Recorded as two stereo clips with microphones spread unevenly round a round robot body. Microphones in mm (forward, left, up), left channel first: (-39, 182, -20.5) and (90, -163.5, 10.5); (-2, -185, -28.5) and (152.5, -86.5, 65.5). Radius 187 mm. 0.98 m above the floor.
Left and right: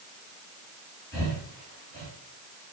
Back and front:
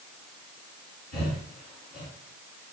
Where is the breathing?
165° right, 2 m.